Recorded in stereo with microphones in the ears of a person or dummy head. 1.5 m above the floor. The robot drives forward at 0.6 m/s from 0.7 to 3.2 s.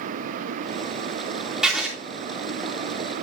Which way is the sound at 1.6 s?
Centre (ahead or behind).